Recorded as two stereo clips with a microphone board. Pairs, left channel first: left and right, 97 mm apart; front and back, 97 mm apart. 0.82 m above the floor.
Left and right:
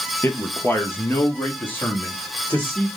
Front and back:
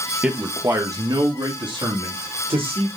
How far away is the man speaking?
About 0.7 m.